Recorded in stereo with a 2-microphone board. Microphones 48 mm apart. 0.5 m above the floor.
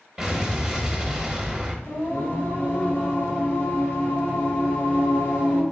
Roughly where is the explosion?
Centre.